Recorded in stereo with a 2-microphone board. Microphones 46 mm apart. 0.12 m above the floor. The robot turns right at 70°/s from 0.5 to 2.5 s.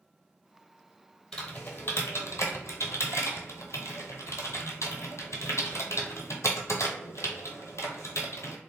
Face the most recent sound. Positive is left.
turn(degrees=75)  # may be behind; listen again after turning